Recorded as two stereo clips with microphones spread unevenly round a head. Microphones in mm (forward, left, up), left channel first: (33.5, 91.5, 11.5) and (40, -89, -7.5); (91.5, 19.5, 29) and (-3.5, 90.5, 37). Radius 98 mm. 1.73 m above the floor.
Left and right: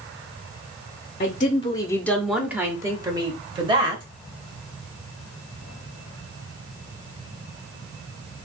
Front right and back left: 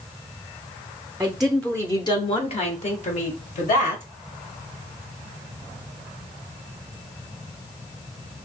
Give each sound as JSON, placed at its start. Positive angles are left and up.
{"t": 1.2, "sound": "a woman speaking", "azimuth_deg": 75, "distance_m": 0.6}